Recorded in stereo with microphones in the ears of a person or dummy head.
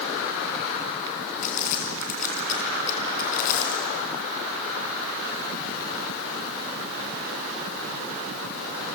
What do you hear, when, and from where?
1.4 s crumpling: 55° left (ahead or behind), 3 m